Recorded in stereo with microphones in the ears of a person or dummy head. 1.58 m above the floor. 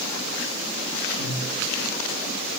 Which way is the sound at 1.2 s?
5° left (ahead or behind).